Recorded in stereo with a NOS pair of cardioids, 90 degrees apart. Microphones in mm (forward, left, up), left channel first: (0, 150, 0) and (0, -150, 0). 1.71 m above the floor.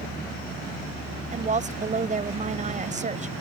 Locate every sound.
1.3 s a woman speaking: 25° right